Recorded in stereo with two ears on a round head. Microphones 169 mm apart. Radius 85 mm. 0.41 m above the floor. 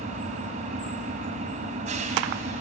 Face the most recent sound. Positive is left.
turn(degrees=-40)  # may be behind; listen again after turning